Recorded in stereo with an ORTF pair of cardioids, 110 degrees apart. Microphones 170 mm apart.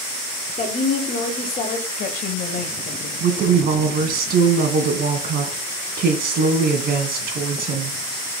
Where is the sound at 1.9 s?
60° left, 2.0 m.